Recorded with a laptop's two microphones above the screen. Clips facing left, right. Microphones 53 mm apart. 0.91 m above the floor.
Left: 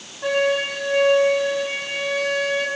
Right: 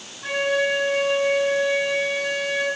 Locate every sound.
0.2 s a flute: 70° left (ahead or behind), 5 m